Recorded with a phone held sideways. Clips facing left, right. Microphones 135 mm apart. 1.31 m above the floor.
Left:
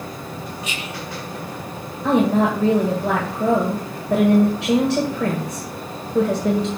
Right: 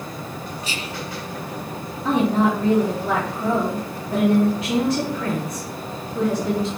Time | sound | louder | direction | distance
0.6 | whispering | even | 35° right (ahead or behind) | 0.5 m
2.0 | a woman speaking | left 2 dB | 75° left (ahead or behind) | 1.8 m